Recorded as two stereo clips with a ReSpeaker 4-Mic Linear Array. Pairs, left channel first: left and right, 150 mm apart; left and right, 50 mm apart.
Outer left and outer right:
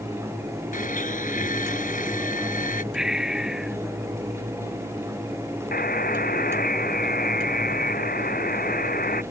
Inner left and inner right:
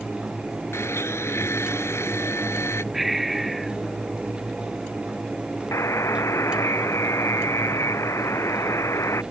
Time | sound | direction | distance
0.7 | a blender | 65° left (ahead or behind) | ?
2.9 | breathing | 5° right (ahead or behind) | ?
5.7 | a buzzer | 80° left | ?